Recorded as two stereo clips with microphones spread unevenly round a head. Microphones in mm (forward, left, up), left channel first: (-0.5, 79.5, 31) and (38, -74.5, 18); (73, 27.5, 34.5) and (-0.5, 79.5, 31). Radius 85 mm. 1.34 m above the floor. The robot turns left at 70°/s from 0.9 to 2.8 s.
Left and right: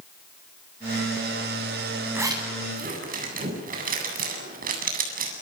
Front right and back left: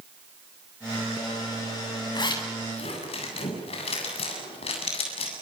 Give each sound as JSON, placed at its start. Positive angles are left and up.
{"t": 2.1, "sound": "a zipper", "azimuth_deg": 0, "distance_m": 8.0}